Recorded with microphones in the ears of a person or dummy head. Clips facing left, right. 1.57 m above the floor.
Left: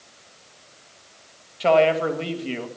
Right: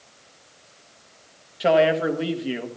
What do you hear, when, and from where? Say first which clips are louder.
1.6 s a man speaking: left 1 dB; 10° right (ahead or behind), 1.6 m